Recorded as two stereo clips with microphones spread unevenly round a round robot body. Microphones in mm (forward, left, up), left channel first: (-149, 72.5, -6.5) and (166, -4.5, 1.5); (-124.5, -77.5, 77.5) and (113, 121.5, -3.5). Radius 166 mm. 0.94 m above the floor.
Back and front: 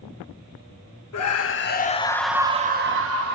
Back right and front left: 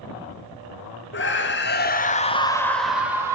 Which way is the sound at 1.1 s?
165° left.